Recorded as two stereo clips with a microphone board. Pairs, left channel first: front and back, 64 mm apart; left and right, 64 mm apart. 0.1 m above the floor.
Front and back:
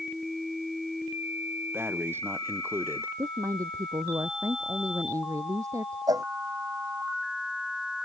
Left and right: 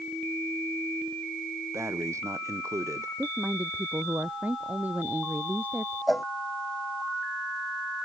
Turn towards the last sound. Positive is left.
turn(degrees=180)